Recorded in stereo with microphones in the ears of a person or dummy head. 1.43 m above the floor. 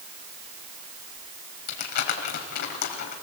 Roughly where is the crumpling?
Left.